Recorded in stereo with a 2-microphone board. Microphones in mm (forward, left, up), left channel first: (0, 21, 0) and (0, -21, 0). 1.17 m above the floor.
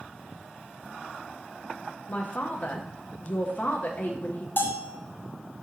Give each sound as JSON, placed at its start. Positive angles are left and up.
{"t": 2.1, "sound": "a man speaking", "side_deg": 40, "distance_m": 0.5}
{"t": 4.6, "sound": "a bell", "side_deg": 55, "distance_m": 0.5}